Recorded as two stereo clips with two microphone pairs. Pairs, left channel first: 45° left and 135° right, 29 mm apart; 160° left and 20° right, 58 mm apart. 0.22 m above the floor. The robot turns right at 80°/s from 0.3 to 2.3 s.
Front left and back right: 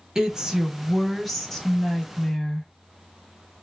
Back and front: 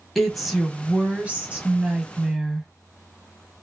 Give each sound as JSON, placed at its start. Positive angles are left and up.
{"t": 0.1, "sound": "a woman speaking", "azimuth_deg": -115, "distance_m": 1.0}